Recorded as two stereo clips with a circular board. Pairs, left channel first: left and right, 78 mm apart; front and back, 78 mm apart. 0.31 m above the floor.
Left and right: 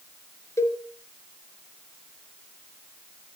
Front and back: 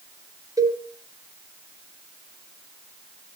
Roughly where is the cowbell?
Behind left.